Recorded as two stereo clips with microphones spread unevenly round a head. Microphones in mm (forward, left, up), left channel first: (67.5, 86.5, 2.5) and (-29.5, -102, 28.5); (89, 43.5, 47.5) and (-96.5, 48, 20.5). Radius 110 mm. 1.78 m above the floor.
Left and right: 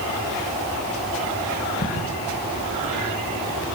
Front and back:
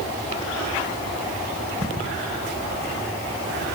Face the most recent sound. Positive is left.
turn(degrees=125)